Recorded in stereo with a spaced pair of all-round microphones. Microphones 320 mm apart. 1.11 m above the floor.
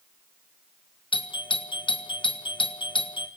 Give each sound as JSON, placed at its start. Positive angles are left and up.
{"t": 1.1, "sound": "a doorbell", "side_deg": 15, "distance_m": 1.6}